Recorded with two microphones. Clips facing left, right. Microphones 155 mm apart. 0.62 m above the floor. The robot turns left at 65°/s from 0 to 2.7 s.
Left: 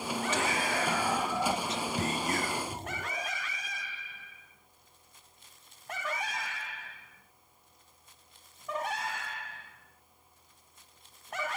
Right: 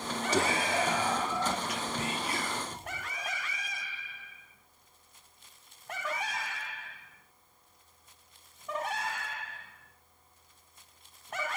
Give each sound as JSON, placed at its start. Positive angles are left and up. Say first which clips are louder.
{"t": 0.3, "sound": "whispering", "louder": "right 5 dB", "azimuth_deg": -125, "distance_m": 1.6}